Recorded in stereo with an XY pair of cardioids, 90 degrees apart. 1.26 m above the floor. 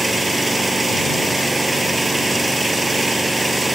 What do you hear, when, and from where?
0.0 s an engine running: 15° right